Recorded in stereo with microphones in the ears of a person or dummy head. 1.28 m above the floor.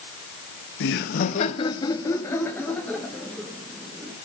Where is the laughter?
75° left (ahead or behind), 1.2 m; by 4.2 s centre (ahead or behind), 4.5 m.